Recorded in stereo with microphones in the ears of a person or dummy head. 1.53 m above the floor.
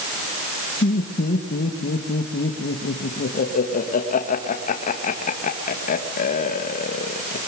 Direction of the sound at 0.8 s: 40° left (ahead or behind).